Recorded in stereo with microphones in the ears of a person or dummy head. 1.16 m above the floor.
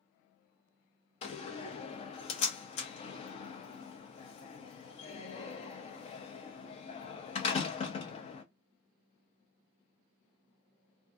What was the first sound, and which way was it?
A door slam, 35° left (ahead or behind).